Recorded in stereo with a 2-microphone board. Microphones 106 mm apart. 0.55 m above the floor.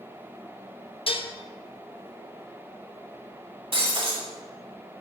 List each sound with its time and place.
1.1 s dishes clattering: 60° left (ahead or behind), 0.7 m
3.7 s breaking glass: 55° right (ahead or behind), 2.5 m